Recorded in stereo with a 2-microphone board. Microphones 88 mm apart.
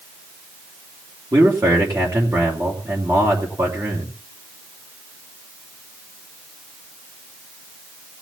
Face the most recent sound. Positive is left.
turn(degrees=-40)  # may be behind; listen again after turning